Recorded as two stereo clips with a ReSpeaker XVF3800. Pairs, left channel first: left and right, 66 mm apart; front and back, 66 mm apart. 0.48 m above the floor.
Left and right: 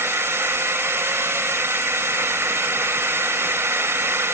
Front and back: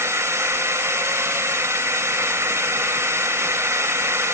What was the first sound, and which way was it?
A drone, 140° right.